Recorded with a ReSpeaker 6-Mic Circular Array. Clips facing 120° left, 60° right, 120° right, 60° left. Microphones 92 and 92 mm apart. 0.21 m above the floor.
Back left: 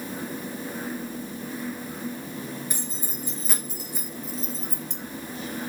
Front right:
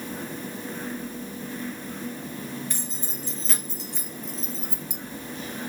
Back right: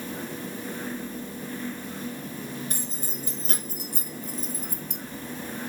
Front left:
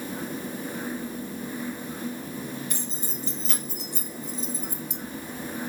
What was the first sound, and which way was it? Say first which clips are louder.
Keys jangling: back left 1 dB, front left 1 dB; 165° right.